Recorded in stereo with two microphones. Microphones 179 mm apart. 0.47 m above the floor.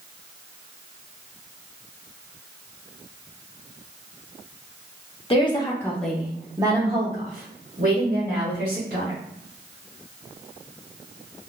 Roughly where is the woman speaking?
Left.